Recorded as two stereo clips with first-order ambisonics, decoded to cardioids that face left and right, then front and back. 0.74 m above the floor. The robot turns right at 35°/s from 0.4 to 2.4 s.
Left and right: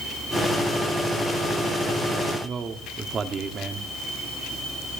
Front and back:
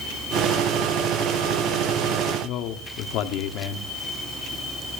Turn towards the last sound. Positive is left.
turn(degrees=-25)